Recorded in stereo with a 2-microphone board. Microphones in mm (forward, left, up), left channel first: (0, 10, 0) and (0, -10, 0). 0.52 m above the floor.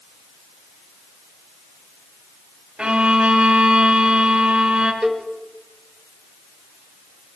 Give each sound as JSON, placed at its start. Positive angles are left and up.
{"t": 2.8, "sound": "a violin", "side_deg": -45, "distance_m": 3.0}
{"t": 5.0, "sound": "a cowbell", "side_deg": -20, "distance_m": 2.0}